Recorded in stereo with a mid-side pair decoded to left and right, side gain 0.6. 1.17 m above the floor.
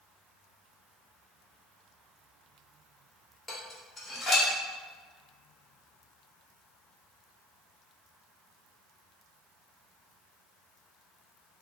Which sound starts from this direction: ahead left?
Dishes clattering, at 3.5 s.